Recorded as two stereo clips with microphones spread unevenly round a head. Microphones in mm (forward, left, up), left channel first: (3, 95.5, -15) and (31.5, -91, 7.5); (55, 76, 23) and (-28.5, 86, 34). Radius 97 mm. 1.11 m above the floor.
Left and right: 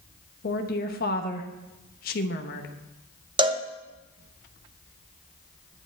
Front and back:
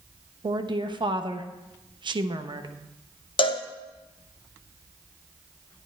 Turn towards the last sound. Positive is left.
turn(degrees=-15)